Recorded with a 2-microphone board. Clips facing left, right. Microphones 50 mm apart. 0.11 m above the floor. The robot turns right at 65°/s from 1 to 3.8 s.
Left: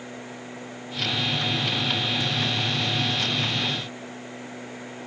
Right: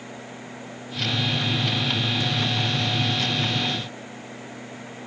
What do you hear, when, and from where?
Only background noise.